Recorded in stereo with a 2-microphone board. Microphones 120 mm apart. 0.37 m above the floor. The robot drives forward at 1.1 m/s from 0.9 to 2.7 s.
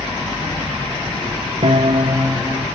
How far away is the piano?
About 0.5 m.